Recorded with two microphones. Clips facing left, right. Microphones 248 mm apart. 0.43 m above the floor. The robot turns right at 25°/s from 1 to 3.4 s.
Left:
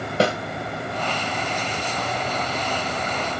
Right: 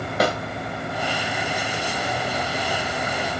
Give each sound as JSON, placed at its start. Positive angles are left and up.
{"t": 0.2, "sound": "a snare drum", "side_deg": 30, "distance_m": 2.0}